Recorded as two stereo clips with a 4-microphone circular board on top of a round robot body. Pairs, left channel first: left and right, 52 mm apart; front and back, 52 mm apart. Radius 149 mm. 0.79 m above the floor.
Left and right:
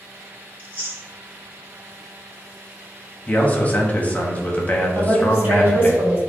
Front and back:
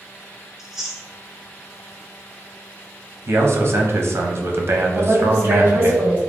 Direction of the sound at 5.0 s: 140° right.